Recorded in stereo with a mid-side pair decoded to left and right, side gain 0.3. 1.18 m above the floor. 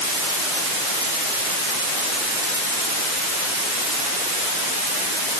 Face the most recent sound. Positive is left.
No sound to turn to.